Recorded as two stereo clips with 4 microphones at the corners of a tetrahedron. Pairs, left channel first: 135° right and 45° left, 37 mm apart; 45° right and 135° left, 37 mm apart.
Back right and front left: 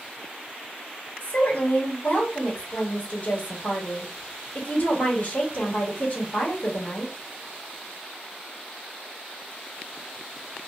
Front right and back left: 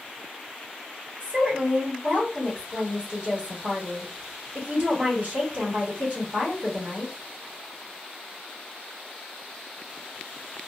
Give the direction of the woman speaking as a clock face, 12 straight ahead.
6 o'clock.